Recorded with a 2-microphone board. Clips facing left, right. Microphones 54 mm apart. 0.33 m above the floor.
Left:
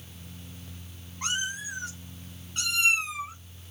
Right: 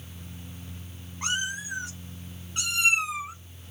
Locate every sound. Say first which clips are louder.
1.2 s a cat meowing: right 2 dB; 5° right (ahead or behind), 5 m; by 3.4 s 15° right (ahead or behind), 3.5 m